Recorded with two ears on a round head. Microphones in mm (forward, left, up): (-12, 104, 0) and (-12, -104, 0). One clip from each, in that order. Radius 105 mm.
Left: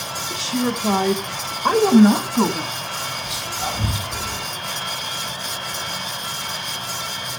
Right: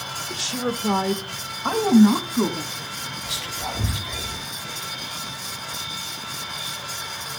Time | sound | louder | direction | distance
0.3 | a woman speaking | left 2 dB | 10° right (ahead or behind) | 0.9 m
3.2 | whispering | left 3 dB | centre (ahead or behind) | 4 m